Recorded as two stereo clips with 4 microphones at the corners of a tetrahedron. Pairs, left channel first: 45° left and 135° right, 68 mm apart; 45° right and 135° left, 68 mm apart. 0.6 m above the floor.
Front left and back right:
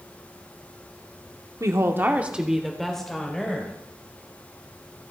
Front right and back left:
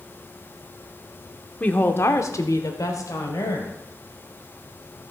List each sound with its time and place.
1.6 s a woman speaking: 110° right, 1.1 m; by 3.7 s 25° right, 2.5 m